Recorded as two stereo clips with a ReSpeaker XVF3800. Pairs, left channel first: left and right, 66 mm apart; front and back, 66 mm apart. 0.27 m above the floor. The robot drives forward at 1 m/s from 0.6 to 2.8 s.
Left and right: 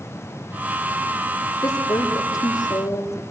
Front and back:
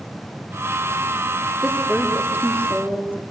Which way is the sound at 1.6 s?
110° left.